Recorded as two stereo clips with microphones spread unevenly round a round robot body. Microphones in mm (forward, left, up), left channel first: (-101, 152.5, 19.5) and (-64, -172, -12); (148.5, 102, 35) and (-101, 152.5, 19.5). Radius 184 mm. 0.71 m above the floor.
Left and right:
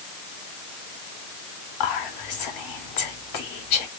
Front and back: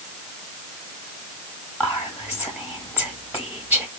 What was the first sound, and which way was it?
Whispering, 75° left.